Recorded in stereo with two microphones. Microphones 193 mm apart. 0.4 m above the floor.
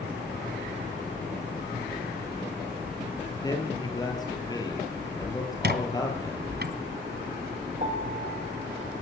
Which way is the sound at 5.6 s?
55° right (ahead or behind).